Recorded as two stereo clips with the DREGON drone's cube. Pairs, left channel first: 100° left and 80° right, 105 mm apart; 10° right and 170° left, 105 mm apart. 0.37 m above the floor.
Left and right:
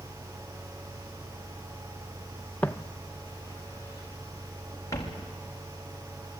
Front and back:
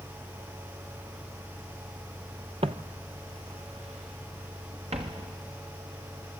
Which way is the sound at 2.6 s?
175° left.